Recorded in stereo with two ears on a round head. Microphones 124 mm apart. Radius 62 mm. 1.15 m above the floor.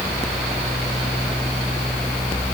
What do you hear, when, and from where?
Only background noise.